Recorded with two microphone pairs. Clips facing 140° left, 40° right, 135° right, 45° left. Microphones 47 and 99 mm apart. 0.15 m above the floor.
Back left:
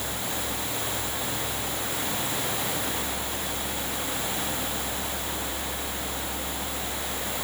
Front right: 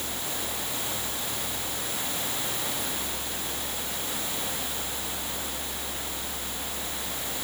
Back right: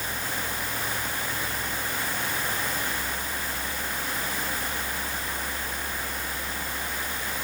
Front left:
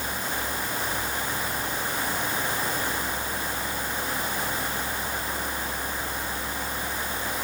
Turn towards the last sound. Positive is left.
No sound to turn to.